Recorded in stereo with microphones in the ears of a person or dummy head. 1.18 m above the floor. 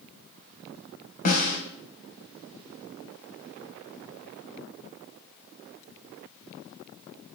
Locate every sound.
1.2 s a snare drum: 50° left (ahead or behind), 2.5 m